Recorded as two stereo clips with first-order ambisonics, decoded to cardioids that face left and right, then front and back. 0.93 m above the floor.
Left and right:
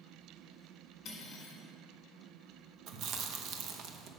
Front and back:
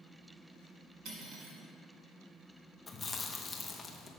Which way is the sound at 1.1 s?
140° left.